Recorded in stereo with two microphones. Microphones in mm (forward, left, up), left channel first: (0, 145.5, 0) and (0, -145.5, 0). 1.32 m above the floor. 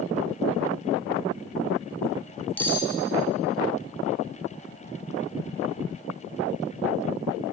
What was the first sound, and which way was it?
Cutlery clinking, 5° left (ahead or behind).